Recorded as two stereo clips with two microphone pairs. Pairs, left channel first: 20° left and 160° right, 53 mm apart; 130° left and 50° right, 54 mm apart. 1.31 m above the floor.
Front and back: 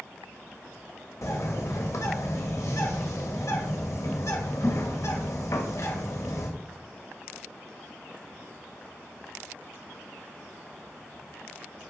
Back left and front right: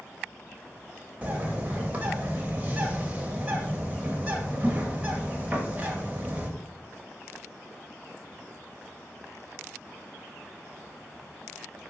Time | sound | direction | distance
1.2 | a bird | 15° left | 1.3 m